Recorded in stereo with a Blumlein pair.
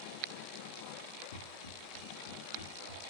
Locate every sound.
1.3 s running footsteps: 65° left, 5 m